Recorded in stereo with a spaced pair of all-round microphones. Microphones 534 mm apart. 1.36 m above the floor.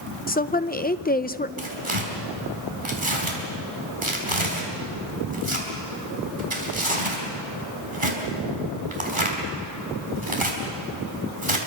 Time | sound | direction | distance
0.3 | a woman speaking | 15° left (ahead or behind) | 0.7 m
1.6 | tearing paper | 65° right (ahead or behind) | 4.5 m